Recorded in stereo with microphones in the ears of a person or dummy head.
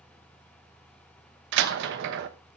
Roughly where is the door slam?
Right.